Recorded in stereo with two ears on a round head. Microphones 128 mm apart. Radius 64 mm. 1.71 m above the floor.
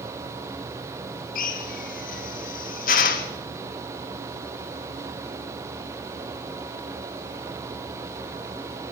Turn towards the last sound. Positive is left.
turn(degrees=65)  # may be behind; listen again after turning